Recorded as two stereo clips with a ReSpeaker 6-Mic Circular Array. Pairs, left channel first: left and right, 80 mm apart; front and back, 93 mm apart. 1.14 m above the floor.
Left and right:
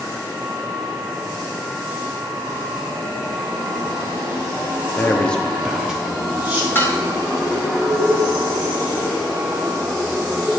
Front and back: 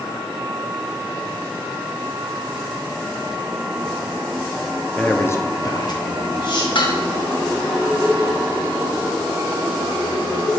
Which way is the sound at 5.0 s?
75° left.